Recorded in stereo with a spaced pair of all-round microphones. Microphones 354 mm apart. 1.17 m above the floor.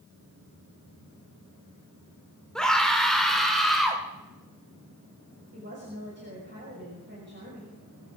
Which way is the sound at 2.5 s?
Centre (ahead or behind).